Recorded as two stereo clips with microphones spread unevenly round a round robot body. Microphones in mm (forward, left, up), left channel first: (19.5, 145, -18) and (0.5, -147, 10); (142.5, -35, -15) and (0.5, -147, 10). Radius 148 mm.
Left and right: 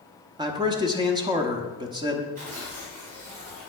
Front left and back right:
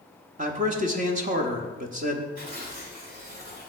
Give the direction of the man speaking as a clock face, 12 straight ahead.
6 o'clock.